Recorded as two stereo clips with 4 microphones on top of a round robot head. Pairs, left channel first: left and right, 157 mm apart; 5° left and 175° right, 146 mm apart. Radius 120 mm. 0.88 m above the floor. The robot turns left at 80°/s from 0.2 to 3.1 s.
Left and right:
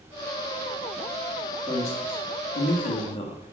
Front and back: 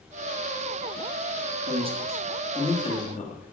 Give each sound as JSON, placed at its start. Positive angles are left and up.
{"t": 1.7, "sound": "a man speaking", "azimuth_deg": 155, "distance_m": 2.0}